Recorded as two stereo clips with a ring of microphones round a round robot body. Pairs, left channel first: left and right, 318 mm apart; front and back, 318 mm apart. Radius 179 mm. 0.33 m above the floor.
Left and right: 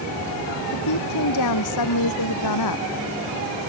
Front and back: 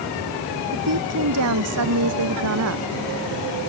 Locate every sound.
0.7 s a woman speaking: 130° left